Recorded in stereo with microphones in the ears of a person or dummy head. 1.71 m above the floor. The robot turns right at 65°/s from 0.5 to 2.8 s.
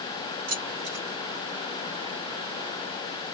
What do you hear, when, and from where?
0.5 s keys jangling: 40° right (ahead or behind), 1.0 m; by 1.1 s 45° right (ahead or behind), 1.0 m